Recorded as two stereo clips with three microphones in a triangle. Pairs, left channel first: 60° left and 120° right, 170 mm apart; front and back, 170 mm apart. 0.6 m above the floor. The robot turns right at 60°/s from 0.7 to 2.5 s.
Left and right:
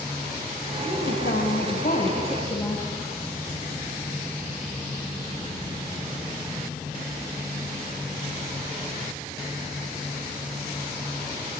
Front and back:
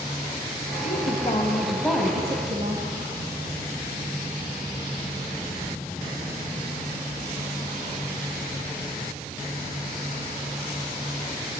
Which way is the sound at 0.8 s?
30° left.